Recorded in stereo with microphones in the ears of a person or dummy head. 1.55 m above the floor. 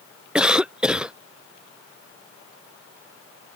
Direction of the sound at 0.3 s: 5° right (ahead or behind).